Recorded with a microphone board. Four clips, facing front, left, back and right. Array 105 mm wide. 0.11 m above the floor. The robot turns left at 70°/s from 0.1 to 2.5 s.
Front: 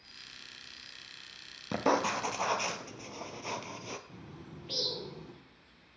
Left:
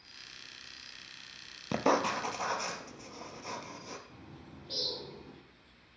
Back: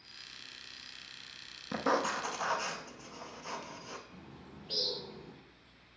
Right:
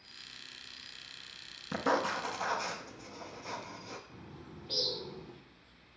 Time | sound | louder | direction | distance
1.7 | writing | left 2 dB, front 2 dB | 65° left | 0.8 m
4.1 | a bird | right 1 dB, front 3 dB | 5° right | 2.5 m